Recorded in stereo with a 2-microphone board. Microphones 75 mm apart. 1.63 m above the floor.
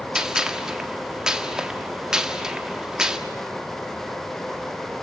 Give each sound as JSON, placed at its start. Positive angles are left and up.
{"t": 0.1, "sound": "a gunshot", "side_deg": -10, "distance_m": 1.8}